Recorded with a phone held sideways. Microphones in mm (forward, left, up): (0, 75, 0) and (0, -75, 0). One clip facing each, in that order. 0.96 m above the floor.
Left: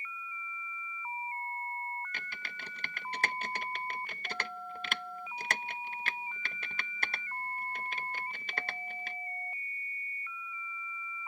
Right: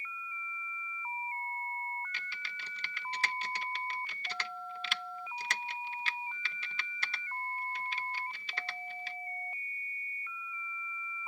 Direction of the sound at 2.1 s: 50° left (ahead or behind).